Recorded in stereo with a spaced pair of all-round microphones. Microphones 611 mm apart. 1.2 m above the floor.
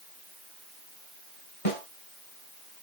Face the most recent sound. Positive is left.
turn(degrees=60)  # may be behind; listen again after turning